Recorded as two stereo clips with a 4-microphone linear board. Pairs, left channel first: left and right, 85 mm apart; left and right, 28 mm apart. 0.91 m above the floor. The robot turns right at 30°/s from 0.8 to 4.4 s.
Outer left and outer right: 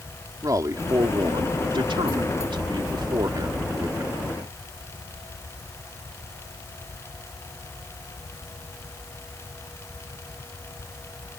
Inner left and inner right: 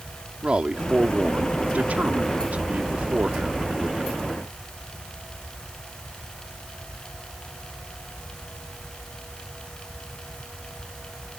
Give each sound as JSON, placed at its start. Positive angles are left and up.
{"t": 0.4, "sound": "a man speaking", "azimuth_deg": -135}